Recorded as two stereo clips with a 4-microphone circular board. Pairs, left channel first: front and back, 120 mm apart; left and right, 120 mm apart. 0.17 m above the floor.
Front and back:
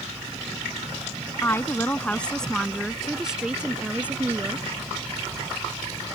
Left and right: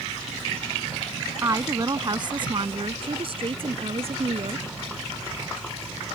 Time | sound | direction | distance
1.4 | a woman speaking | 50° right | ?